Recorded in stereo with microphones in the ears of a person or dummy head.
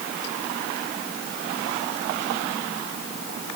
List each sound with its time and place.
Only background noise.